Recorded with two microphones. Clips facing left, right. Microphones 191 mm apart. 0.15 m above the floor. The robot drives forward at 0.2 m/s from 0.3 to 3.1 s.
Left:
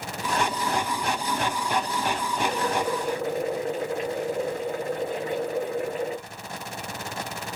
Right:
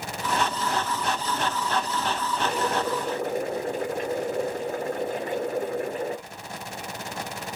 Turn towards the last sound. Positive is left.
turn(degrees=-45)  # may be behind; listen again after turning